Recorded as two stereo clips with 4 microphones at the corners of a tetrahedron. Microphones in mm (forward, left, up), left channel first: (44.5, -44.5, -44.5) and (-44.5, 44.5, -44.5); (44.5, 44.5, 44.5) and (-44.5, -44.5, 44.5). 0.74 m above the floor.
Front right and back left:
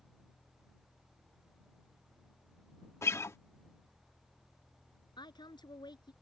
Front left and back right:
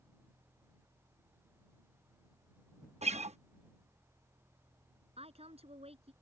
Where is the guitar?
110° right.